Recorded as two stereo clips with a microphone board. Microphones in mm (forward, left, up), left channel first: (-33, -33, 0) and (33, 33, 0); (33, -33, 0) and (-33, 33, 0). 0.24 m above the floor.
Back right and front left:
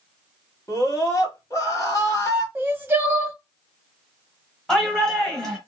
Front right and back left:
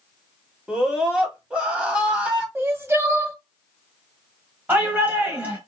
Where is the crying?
95° left, 0.5 m.